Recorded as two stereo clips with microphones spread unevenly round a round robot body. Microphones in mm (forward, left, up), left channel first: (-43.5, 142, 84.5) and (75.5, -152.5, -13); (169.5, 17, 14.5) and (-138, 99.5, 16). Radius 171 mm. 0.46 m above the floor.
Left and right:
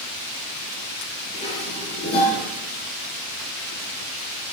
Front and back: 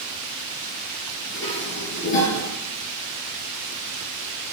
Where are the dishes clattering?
40° left, 7 m.